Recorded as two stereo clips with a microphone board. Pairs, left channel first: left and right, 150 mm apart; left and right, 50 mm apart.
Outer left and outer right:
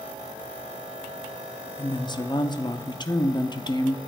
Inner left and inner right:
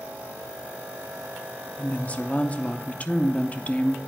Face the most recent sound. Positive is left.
turn(degrees=30)  # may be behind; listen again after turning